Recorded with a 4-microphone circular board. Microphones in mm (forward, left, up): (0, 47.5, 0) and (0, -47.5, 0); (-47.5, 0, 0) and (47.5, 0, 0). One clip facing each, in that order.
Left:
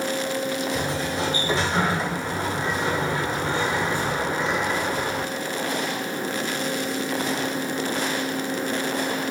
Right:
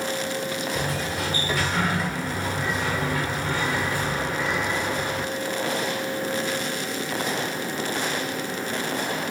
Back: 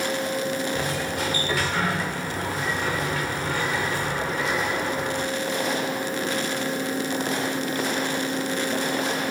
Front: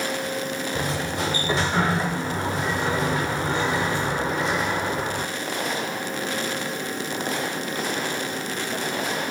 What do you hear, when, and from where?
0.8 s a sliding door: 45° left, 0.6 m